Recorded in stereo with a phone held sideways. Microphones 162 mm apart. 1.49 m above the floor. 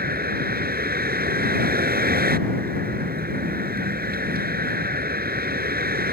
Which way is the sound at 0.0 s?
70° right (ahead or behind).